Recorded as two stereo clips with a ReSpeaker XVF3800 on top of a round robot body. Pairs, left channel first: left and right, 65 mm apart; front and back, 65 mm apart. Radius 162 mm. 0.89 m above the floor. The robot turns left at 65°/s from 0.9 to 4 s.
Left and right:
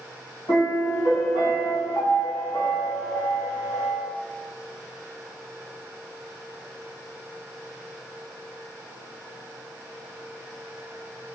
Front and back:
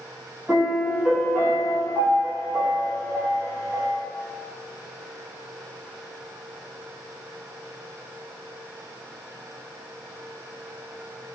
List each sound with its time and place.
0.5 s a piano: 100° left, 1.6 m; by 4.0 s 100° right, 1.6 m